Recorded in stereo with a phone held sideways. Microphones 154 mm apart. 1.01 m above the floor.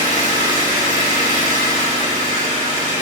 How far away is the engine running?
About 2.5 m.